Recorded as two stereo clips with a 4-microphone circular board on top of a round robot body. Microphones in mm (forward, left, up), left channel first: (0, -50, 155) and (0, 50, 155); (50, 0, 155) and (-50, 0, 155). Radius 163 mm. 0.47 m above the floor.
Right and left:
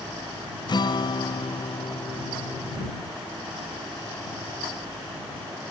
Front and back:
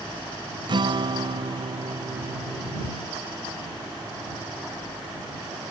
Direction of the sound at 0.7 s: 135° right.